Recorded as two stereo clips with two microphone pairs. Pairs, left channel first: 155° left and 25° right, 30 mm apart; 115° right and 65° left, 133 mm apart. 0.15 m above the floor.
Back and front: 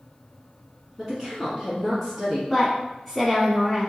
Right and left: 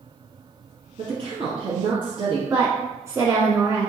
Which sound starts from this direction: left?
A woman speaking, at 2.5 s.